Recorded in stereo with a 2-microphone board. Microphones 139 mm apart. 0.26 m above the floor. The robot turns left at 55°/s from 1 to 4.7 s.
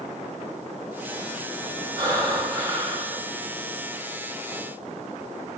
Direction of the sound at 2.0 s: 85° right.